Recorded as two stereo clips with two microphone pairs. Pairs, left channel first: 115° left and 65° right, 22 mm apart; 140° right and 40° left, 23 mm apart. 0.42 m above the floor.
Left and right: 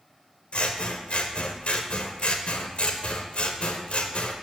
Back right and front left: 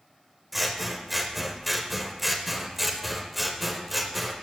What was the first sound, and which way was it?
Scissors, 125° left.